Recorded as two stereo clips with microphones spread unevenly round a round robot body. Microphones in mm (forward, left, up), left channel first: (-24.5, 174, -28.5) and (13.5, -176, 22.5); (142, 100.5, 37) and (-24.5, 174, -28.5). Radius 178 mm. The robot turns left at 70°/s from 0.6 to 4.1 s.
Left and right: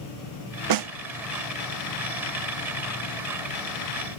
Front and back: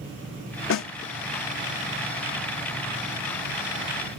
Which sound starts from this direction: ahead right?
A snare drum, at 0.7 s.